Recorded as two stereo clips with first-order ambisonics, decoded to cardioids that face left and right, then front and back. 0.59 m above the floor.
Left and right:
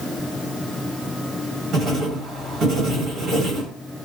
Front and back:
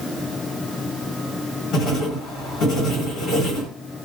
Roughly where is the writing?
Ahead right.